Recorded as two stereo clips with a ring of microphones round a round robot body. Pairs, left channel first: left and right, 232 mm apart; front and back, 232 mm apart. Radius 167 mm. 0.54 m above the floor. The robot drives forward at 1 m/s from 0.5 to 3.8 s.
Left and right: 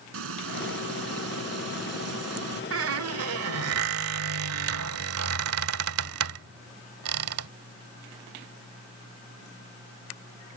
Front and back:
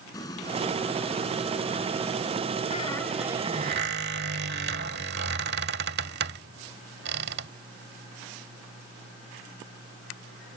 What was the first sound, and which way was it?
Frying, 80° right.